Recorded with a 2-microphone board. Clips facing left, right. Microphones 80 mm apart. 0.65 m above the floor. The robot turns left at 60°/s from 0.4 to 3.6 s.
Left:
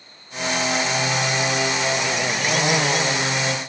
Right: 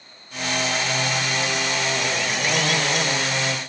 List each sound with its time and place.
Only background noise.